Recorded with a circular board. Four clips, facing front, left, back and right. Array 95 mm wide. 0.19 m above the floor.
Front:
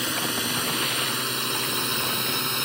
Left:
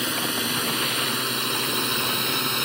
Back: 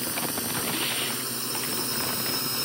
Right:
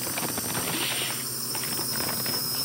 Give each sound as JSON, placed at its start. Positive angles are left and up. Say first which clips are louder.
{"t": 0.0, "sound": "a drone", "louder": "left 5 dB, front 3 dB", "azimuth_deg": 50}